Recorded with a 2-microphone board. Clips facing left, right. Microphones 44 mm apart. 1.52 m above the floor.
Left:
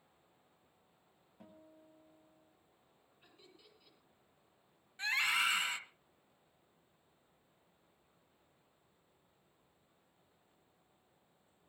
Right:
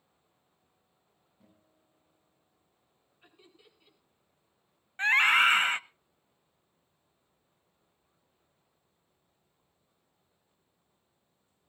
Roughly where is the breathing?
No breathing in this recording.